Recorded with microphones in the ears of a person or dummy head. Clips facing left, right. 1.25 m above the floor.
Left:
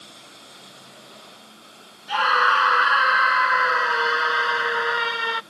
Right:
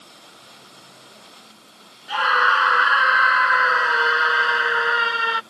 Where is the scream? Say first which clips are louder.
Even; centre (ahead or behind).